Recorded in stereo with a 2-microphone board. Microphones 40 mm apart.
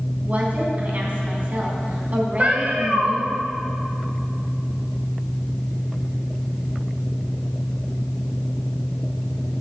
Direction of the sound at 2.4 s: 35° right (ahead or behind).